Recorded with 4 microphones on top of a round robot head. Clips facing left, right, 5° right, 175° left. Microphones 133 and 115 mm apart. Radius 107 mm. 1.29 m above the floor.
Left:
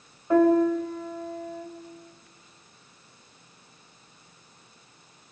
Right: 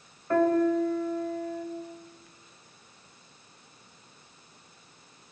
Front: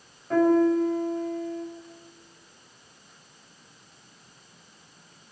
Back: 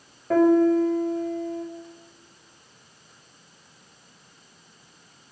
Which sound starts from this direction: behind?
A piano, at 0.3 s.